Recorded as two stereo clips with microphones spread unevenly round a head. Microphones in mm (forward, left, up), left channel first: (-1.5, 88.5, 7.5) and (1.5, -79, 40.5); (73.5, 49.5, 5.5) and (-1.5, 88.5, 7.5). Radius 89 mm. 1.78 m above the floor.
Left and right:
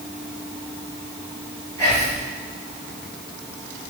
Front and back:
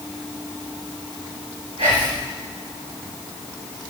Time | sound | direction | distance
1.8 | whispering | 170° left | 2.5 m